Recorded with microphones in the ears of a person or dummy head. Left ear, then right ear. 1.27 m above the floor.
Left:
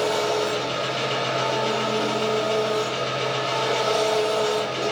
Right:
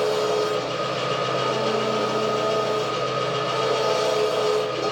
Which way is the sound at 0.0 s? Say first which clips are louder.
Right 1 dB; 40° left (ahead or behind).